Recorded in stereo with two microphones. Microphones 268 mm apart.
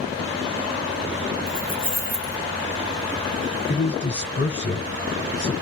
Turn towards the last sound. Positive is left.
turn(degrees=40)  # may be behind; listen again after turning